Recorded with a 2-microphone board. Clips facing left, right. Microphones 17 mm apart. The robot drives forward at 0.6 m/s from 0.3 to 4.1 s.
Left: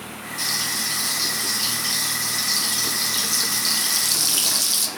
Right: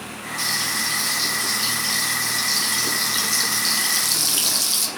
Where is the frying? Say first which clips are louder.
Right 1 dB; centre (ahead or behind), 3 m; by 4.9 s 5° left (ahead or behind), 0.8 m.